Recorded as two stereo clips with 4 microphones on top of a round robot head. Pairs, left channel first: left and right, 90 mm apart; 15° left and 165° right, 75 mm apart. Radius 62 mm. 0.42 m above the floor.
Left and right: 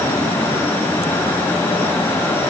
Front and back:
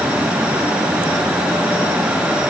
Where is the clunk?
No clunk in this recording.